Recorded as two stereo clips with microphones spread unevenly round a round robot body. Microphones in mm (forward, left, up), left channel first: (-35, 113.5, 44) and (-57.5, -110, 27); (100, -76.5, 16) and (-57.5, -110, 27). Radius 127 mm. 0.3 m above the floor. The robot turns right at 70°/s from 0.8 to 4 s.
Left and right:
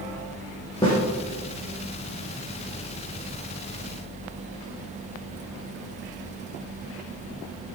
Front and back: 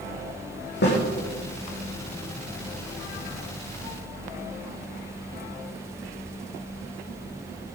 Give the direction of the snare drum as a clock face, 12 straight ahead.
12 o'clock.